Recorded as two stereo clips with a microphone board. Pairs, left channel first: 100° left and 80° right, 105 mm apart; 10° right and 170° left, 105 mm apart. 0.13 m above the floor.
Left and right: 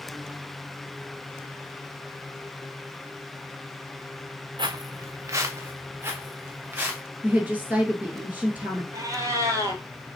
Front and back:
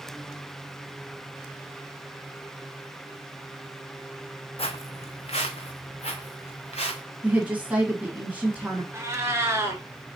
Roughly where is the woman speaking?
Behind right.